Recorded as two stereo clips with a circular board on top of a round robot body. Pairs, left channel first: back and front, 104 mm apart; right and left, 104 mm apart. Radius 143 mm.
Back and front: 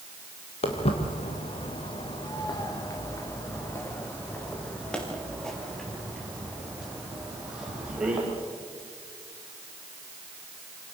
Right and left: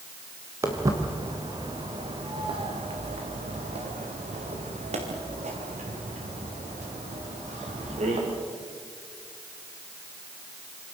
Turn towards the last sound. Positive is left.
turn(degrees=80)